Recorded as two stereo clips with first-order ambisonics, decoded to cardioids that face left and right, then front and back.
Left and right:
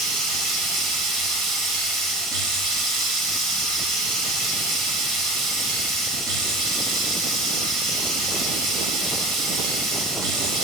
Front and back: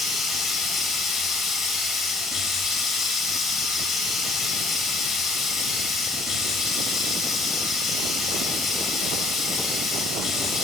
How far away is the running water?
About 3 m.